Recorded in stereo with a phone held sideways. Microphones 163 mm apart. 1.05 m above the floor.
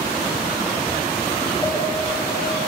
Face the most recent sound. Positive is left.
turn(degrees=15)  # may be behind; listen again after turning